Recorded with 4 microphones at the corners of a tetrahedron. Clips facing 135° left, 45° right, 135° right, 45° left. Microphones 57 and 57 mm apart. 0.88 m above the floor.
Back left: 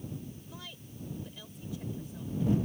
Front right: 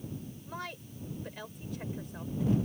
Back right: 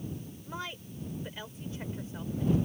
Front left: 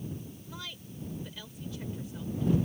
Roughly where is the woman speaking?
Right.